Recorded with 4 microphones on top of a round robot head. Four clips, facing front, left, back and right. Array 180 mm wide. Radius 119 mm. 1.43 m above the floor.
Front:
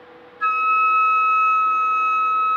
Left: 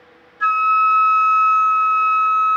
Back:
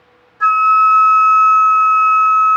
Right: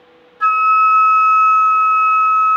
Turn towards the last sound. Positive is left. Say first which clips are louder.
# right 3 dB, back 8 dB
turn(degrees=-140)